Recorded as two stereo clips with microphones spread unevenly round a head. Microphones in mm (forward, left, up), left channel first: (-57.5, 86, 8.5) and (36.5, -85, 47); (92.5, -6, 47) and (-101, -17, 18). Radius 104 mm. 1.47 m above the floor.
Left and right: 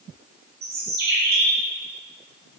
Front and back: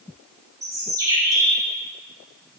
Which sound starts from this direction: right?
A bird, at 0.6 s.